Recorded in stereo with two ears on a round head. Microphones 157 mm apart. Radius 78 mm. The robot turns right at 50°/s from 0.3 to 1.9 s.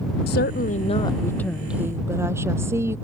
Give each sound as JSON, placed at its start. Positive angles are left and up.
{"t": 0.3, "sound": "a woman speaking", "azimuth_deg": 115}